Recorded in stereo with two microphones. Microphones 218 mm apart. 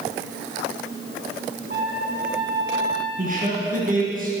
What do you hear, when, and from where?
1.7 s a trumpet: 55° right (ahead or behind), 2.5 m
3.2 s a man speaking: 40° right (ahead or behind), 4 m